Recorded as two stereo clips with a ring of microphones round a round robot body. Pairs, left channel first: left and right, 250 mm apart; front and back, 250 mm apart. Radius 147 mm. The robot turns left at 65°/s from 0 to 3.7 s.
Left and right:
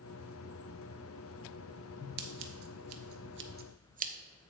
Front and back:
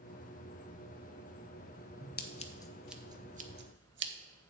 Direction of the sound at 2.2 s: 45° right.